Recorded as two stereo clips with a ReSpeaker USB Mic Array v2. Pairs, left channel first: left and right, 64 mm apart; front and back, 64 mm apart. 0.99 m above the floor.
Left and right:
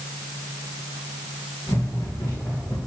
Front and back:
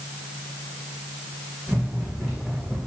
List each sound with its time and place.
1.7 s running footsteps: 95° left, 3 m; by 2.8 s 85° left, 4 m